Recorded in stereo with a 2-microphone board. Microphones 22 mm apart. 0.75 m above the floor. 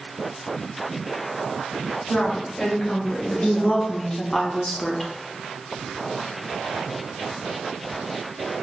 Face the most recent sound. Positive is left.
turn(degrees=15)  # may be behind; listen again after turning